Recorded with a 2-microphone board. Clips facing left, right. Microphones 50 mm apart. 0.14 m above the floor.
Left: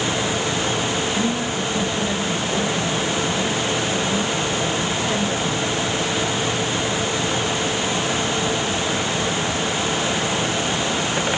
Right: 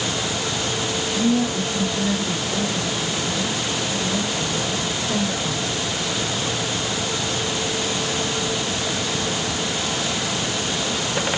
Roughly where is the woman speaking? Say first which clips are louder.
Right 2 dB; left.